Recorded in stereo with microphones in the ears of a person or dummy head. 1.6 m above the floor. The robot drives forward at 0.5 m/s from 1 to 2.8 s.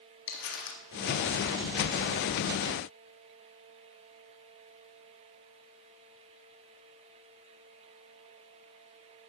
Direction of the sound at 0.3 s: 65° left (ahead or behind).